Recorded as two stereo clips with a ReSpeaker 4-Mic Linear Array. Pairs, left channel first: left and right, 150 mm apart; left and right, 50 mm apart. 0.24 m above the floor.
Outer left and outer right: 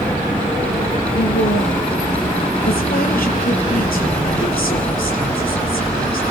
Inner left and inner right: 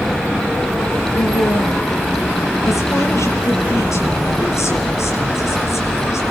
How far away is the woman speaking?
About 5 m.